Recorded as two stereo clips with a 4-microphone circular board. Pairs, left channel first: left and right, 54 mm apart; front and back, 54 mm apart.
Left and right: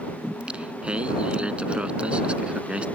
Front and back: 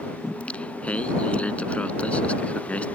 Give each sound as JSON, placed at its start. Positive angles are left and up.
{"t": 0.2, "sound": "singing", "azimuth_deg": -40}